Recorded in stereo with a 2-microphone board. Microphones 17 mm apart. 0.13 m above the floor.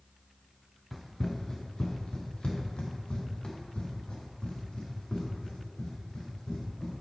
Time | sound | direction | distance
0.9 | running footsteps | 10° left (ahead or behind) | 0.8 m